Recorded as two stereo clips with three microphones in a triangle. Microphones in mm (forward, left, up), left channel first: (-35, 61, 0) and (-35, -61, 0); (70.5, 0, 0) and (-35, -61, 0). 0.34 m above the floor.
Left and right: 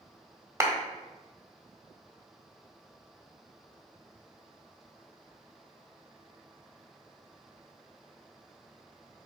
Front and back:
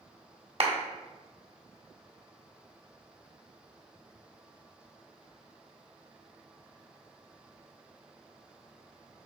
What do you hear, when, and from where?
0.6 s a clap: 150° right, 1.3 m